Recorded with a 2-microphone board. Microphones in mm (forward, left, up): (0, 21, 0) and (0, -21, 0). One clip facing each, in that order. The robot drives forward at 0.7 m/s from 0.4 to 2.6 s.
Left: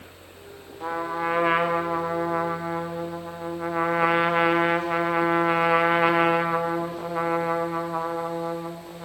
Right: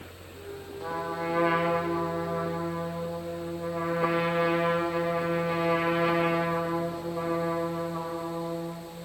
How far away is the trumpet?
About 2 m.